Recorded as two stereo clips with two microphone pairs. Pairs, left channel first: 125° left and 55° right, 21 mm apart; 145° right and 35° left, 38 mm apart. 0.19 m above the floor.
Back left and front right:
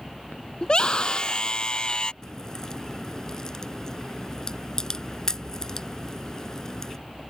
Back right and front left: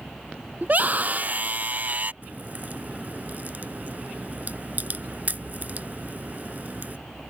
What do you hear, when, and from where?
0.6 s a scream: 80° left
2.2 s a crack: 70° left